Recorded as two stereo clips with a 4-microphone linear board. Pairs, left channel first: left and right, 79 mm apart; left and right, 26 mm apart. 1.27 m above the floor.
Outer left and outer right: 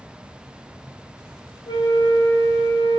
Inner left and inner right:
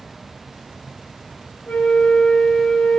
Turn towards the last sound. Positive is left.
turn(degrees=80)